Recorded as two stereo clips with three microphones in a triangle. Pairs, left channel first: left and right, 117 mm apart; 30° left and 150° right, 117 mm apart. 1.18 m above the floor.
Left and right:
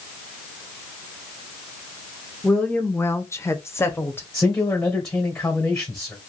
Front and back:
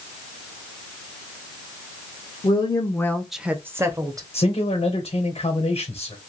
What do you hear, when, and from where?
2.4 s a woman speaking: 10° left, 0.7 m; by 4.2 s 160° left, 1.0 m
4.3 s a man speaking: 10° left, 1.0 m